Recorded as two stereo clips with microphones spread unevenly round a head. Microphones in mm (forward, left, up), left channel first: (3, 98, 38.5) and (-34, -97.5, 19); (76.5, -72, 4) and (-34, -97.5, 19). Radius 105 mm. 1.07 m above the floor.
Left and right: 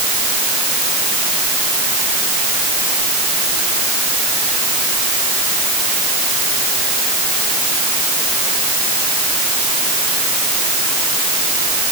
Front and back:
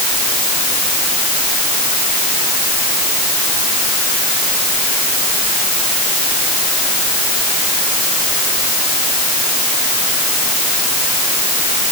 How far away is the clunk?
I don't hear a clunk.